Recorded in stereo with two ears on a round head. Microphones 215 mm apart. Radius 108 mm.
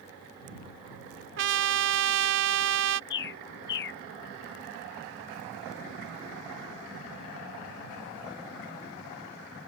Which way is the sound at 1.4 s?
55° right (ahead or behind).